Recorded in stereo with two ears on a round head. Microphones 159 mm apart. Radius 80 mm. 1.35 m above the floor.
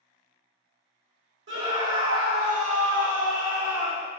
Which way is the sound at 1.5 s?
70° right (ahead or behind).